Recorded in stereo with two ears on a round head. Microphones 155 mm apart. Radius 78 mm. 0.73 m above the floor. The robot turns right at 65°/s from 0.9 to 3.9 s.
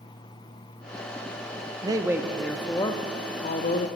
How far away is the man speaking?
About 0.6 m.